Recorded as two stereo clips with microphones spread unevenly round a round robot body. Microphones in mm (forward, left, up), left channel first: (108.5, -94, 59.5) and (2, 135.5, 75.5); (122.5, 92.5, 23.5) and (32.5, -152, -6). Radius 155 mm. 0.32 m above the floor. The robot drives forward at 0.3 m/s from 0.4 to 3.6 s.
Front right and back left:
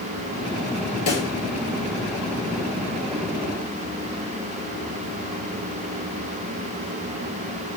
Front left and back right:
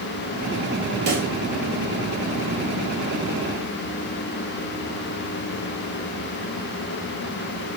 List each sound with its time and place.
1.1 s a pop: 95° right, 4.5 m